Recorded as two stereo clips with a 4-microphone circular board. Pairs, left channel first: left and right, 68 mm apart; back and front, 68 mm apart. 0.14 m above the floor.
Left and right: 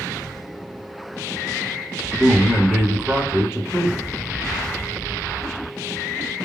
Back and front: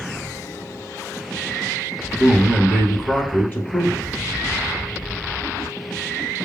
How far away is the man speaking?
About 1.5 m.